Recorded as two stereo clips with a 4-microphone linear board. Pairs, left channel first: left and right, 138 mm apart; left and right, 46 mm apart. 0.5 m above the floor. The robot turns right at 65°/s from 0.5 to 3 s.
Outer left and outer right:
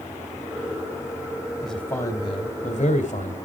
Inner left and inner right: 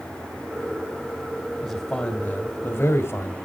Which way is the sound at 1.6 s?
Straight ahead.